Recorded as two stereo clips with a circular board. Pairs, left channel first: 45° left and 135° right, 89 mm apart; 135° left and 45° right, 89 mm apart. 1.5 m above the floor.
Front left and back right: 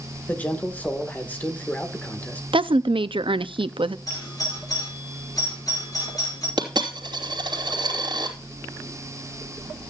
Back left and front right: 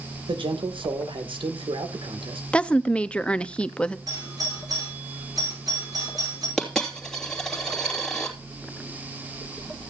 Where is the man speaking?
25° right, 1.8 m.